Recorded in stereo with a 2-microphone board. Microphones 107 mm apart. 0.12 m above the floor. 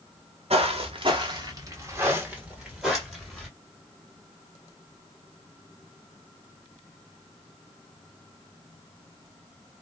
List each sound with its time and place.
0.5 s footsteps: 70° right (ahead or behind), 1.1 m; by 3.5 s 5° left (ahead or behind), 1.6 m